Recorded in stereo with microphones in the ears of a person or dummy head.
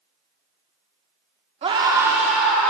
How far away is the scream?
About 1.0 m.